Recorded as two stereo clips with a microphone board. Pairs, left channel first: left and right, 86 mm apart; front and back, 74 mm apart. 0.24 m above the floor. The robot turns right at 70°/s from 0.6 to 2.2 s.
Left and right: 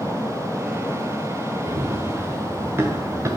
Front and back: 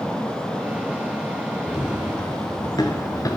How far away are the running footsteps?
About 3 m.